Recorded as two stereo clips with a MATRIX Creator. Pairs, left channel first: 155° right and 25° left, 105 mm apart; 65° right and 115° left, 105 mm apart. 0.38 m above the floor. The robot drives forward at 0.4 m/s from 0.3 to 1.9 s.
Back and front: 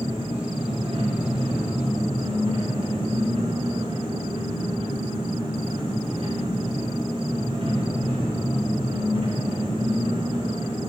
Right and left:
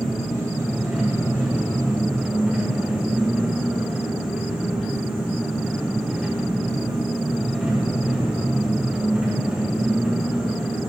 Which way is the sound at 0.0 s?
30° left.